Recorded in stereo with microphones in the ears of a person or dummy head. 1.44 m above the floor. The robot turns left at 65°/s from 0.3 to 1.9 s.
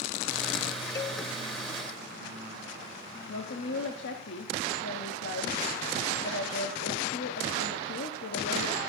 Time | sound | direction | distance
0.9 | a cowbell | 25° left (ahead or behind) | 0.9 m
3.3 | a woman speaking | 75° left (ahead or behind) | 1.1 m